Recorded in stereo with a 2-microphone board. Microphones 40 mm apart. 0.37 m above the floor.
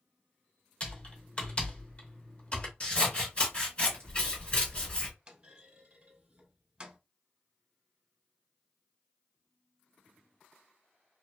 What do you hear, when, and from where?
0.8 s typing on a keyboard: 30° left (ahead or behind), 0.8 m
2.8 s scissors: 25° left (ahead or behind), 1.7 m
5.3 s a clunk: 25° right (ahead or behind), 1.0 m